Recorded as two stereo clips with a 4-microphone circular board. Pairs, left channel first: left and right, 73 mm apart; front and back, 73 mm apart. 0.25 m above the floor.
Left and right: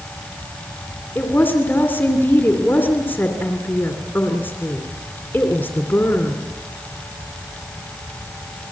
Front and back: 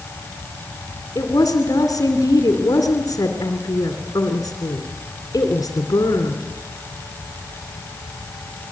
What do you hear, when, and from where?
1.1 s a woman speaking: 30° left, 2.5 m